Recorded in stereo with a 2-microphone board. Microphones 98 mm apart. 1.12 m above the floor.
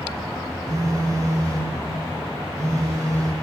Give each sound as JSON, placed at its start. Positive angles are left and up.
{"t": 0.7, "sound": "a phone buzzing", "side_deg": -35, "distance_m": 0.5}